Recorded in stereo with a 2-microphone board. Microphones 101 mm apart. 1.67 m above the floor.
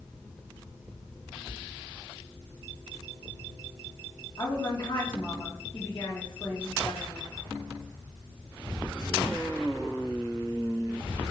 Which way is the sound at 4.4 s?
45° left (ahead or behind).